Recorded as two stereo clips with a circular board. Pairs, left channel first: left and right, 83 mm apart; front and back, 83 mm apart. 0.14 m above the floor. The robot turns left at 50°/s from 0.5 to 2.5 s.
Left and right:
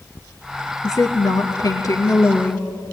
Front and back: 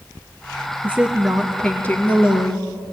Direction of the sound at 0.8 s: 115° left.